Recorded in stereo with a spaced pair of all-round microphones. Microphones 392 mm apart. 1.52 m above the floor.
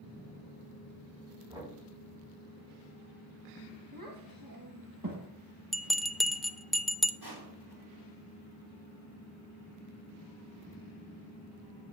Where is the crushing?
80° right, 4 m.